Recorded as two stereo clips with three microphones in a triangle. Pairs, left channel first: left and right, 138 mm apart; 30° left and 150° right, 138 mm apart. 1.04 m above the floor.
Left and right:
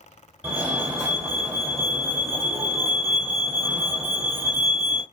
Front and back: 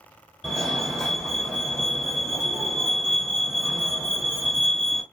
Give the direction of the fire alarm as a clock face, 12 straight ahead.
1 o'clock.